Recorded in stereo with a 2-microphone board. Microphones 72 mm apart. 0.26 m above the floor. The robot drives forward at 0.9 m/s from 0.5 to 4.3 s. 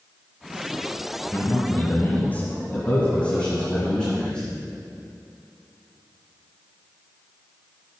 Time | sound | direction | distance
1.3 | a man speaking | 30° left (ahead or behind) | 1.0 m